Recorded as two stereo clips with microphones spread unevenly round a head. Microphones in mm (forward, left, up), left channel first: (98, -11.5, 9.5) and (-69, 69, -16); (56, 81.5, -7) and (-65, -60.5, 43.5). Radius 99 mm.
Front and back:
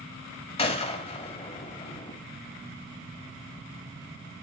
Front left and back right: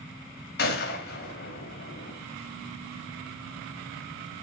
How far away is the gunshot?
About 1.5 m.